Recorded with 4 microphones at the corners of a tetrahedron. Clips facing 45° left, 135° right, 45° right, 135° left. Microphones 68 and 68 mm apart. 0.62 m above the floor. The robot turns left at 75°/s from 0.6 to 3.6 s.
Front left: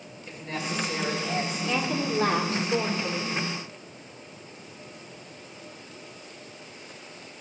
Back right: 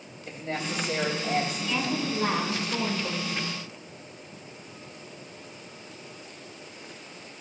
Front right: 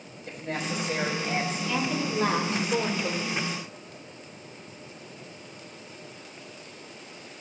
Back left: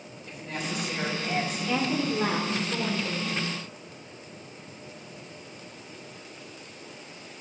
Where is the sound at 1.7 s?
100° left, 1.4 m; by 3.4 s 25° right, 1.4 m.